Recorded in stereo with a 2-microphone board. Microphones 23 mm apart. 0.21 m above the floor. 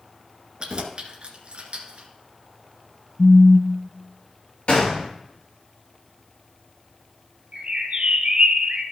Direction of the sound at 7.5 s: 60° right (ahead or behind).